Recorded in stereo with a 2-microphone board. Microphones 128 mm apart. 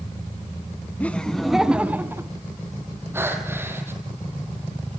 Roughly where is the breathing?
Centre.